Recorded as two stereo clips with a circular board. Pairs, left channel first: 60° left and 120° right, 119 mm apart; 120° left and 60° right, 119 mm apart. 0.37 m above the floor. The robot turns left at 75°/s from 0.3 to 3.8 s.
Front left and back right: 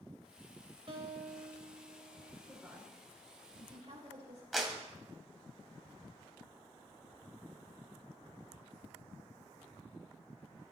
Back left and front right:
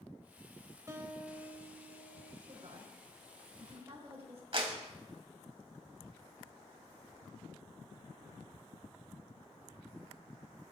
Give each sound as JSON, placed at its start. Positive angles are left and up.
{"t": 0.9, "sound": "a guitar", "azimuth_deg": -115, "distance_m": 1.2}
{"t": 2.5, "sound": "a woman speaking", "azimuth_deg": -10, "distance_m": 3.5}
{"t": 4.5, "sound": "a clap", "azimuth_deg": -30, "distance_m": 1.8}